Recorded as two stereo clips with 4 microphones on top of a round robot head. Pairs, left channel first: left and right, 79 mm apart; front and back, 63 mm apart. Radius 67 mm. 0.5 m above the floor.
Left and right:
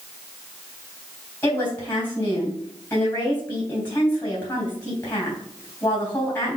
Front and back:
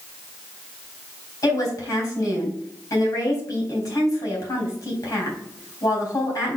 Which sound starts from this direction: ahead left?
A woman speaking, at 1.4 s.